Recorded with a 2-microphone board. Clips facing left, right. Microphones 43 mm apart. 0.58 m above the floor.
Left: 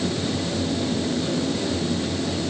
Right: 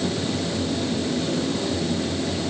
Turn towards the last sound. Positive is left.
No sound to turn to.